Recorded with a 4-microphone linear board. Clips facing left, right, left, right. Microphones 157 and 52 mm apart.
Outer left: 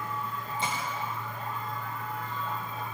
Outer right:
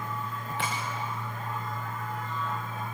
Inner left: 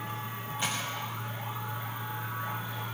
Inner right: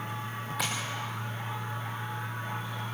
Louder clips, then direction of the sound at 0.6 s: Even, even; 80° right.